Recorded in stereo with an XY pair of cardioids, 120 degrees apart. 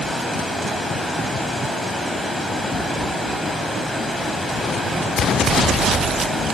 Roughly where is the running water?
Ahead.